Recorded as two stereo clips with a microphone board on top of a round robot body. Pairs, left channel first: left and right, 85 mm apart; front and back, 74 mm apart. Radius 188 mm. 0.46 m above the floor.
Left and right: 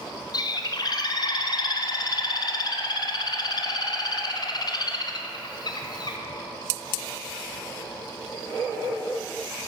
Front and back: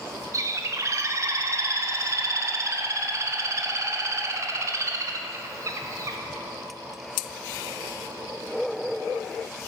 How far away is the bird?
About 0.6 m.